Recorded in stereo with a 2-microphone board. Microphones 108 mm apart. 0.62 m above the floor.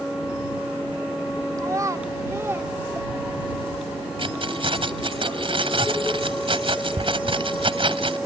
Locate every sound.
1.6 s a child speaking: 30° right (ahead or behind); by 3.6 s 10° right (ahead or behind)
4.2 s keys jangling: 55° right (ahead or behind)